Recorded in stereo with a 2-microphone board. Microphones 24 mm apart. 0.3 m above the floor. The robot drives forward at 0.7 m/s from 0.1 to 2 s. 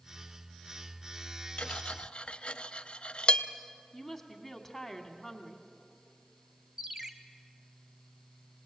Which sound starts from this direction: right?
A ringtone, at 6.8 s.